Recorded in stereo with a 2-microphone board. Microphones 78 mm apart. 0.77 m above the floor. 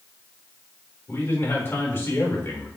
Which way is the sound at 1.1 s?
35° left (ahead or behind).